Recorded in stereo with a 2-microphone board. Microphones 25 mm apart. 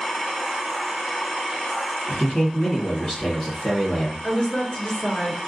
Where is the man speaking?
30° left (ahead or behind), 1.4 m.